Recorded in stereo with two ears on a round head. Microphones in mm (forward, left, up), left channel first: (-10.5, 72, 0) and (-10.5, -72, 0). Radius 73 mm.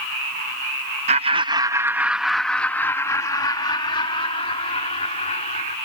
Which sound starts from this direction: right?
Laughter, at 1.1 s.